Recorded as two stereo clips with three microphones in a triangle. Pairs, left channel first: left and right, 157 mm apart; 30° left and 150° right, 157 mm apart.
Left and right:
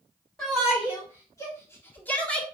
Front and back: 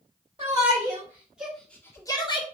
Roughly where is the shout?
Behind left.